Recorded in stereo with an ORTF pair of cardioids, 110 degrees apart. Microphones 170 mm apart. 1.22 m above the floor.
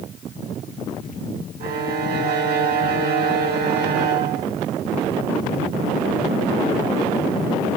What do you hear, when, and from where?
1.6 s a violin: 65° right, 1.0 m